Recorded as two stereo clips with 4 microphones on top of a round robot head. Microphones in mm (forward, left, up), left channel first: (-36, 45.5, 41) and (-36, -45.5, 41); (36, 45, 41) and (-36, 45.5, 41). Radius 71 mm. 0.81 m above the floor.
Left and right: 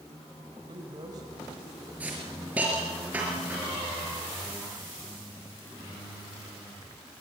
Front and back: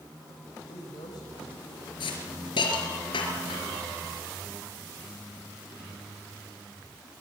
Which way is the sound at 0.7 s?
40° right.